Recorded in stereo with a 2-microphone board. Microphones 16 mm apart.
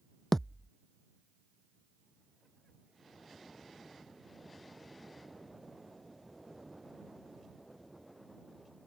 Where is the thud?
25° left (ahead or behind).